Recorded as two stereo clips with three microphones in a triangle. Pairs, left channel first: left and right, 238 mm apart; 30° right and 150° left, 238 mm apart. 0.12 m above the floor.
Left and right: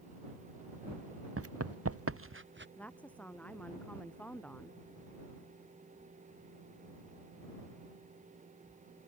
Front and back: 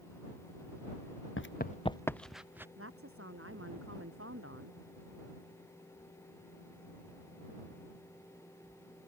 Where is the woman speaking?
175° left.